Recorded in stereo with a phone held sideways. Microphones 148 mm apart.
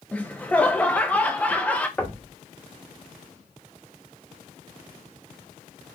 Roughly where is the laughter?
Centre.